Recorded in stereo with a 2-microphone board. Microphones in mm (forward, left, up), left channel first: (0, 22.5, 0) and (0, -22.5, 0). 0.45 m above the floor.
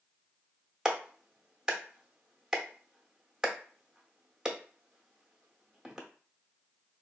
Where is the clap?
15° right (ahead or behind), 0.8 m.